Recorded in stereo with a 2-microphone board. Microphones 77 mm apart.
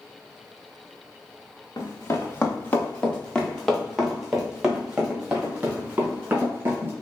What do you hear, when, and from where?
1.8 s running footsteps: 45° left (ahead or behind), 1.6 m; by 6.9 s 25° right (ahead or behind), 4 m